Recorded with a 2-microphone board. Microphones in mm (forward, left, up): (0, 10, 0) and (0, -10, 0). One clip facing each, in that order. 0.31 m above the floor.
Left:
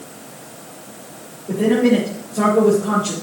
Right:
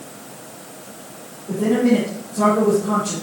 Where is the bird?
No bird in this recording.